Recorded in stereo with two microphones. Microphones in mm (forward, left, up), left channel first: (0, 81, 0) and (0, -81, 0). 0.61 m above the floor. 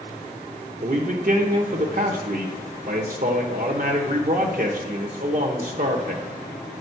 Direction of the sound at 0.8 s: 60° right (ahead or behind).